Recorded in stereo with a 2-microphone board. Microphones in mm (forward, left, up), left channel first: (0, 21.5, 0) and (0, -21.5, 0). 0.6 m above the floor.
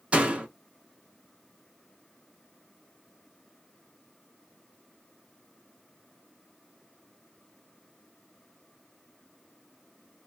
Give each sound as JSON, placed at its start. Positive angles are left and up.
{"t": 0.1, "sound": "a door slam", "side_deg": -30, "distance_m": 0.8}